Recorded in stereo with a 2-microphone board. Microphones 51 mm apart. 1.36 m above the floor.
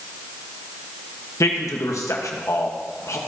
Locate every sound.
1.4 s a man speaking: 80° left, 1.3 m